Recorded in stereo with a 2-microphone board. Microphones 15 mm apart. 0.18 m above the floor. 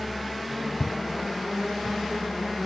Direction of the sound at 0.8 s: 65° left (ahead or behind).